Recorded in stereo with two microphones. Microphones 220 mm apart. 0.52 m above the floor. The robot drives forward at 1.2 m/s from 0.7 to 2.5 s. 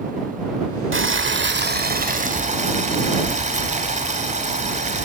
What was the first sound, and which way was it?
Boiling, 65° right (ahead or behind).